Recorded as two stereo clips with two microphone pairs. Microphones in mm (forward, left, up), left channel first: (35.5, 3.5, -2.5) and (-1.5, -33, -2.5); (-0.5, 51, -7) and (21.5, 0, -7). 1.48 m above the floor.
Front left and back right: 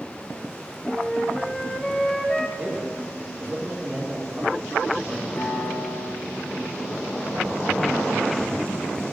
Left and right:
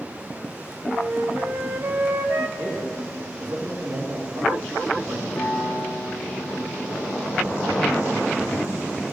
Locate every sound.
0.9 s a flute: 30° right, 1.3 m
2.6 s a man speaking: 65° right, 5 m
5.3 s a piano: 65° left, 7 m